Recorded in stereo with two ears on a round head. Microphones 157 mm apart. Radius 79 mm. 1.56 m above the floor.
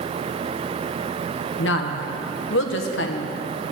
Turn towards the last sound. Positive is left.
turn(degrees=80)